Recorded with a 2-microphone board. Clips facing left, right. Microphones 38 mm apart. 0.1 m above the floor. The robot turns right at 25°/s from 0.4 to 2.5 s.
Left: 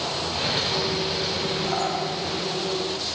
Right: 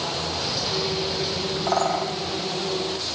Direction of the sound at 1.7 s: 50° right (ahead or behind).